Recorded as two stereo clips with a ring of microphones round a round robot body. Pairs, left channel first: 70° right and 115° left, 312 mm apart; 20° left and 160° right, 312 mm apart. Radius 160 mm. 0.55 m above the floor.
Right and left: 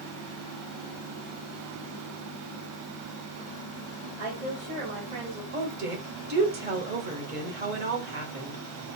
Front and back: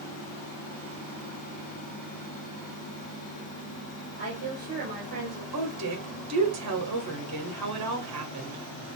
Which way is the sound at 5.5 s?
170° left.